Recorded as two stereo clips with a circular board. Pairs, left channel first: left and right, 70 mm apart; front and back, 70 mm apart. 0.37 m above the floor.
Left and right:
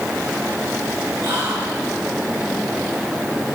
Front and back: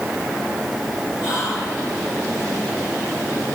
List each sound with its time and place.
1.2 s whispering: 30° right, 4.5 m